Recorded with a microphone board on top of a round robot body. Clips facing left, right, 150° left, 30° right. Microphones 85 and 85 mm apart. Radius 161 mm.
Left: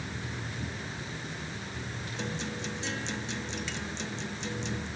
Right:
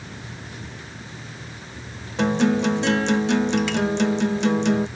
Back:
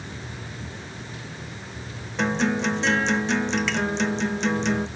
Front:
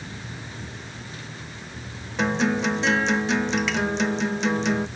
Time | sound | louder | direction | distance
2.2 | a guitar | right 19 dB, front 1 dB | 115° right | ?